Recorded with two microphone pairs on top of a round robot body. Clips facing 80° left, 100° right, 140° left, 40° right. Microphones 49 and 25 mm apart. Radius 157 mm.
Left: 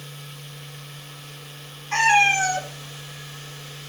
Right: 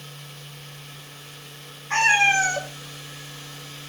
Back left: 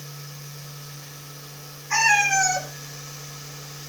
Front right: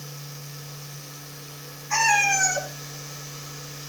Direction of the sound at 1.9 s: 135° right.